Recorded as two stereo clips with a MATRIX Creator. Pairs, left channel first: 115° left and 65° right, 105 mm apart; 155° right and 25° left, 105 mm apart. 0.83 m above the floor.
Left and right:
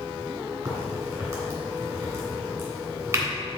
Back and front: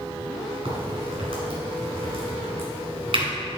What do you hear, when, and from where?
0.7 s a crack: 5° right, 2.5 m